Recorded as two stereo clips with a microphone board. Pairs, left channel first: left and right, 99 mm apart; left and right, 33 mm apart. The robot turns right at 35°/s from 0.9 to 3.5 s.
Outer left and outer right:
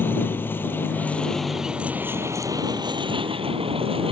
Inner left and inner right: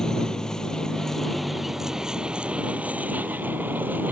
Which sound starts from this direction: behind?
A vehicle, at 0.0 s.